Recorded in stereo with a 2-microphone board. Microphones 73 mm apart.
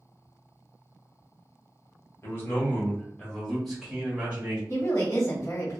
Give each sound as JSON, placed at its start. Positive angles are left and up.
{"t": 2.2, "sound": "a man speaking", "side_deg": 40, "distance_m": 1.2}
{"t": 4.7, "sound": "a woman speaking", "side_deg": 40, "distance_m": 1.7}